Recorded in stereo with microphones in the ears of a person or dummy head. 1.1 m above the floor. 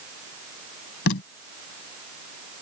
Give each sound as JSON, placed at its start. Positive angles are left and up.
{"t": 1.1, "sound": "tape being pulled", "side_deg": 75}